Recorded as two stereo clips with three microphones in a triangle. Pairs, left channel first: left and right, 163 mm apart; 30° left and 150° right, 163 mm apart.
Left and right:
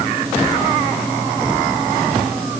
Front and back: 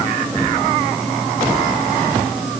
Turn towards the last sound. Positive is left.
No sound to turn to.